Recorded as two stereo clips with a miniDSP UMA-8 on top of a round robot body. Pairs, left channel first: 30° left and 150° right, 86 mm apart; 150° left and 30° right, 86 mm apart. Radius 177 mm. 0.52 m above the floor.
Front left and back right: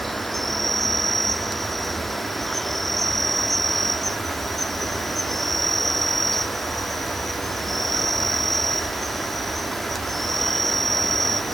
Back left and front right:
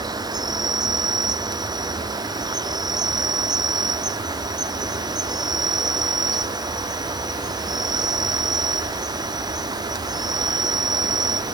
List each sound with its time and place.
0.0 s an insect: 60° right